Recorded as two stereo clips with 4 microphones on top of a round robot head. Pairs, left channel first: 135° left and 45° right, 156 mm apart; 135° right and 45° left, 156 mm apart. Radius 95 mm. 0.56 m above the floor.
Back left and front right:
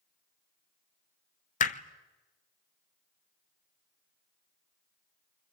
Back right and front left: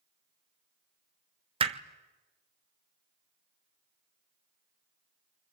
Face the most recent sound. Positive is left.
turn(degrees=100)